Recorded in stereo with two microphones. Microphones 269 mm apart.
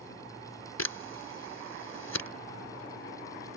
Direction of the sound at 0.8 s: 75° left (ahead or behind).